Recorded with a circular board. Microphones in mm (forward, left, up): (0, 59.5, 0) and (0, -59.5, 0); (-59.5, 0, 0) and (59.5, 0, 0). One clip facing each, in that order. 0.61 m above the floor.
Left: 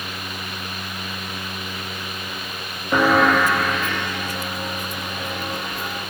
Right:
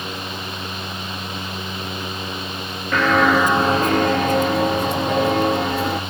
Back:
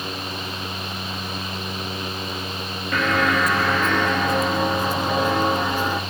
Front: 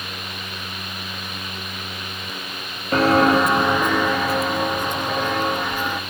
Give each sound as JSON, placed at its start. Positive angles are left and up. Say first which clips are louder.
{"t": 2.9, "sound": "footsteps", "louder": "even, front 6 dB", "azimuth_deg": 25, "distance_m": 0.7}